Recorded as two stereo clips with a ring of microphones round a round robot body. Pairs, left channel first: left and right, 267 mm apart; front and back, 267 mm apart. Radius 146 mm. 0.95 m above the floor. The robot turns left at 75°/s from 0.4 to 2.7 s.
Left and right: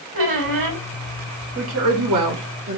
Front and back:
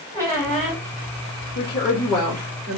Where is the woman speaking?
45° right, 1.2 m; by 2.8 s 130° right, 1.2 m.